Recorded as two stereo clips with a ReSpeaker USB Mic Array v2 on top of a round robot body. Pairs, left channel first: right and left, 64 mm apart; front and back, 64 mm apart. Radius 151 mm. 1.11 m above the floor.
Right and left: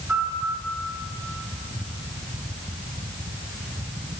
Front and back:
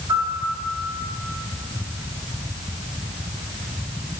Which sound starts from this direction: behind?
A piano, at 0.1 s.